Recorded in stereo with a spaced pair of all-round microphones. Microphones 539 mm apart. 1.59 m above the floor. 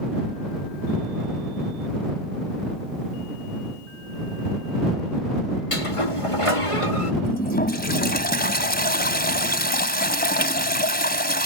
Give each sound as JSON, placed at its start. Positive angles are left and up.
{"t": 5.7, "sound": "a sliding door", "side_deg": 70}
{"t": 7.2, "sound": "a toilet flushing", "side_deg": 15}